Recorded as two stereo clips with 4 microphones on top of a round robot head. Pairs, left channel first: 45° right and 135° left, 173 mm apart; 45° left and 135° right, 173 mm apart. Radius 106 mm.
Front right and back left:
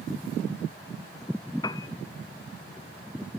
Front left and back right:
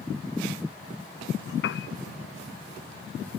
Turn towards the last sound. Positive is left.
turn(degrees=25)